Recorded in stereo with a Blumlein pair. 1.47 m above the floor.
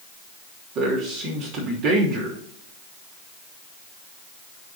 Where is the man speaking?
40° right, 3 m.